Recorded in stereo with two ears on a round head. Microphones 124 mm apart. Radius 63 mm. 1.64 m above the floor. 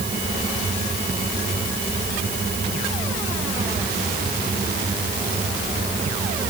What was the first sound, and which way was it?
Only background noise.